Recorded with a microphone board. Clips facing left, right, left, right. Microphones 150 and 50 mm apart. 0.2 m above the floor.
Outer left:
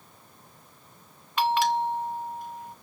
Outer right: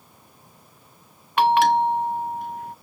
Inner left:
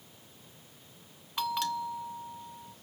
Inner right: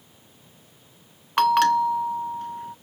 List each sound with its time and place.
1.4 s a bell: 60° right (ahead or behind)